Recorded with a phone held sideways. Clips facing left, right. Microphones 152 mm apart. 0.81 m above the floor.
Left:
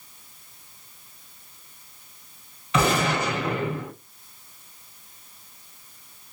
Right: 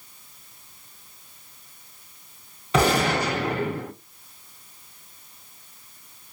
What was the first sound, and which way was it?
A gunshot, 35° right (ahead or behind).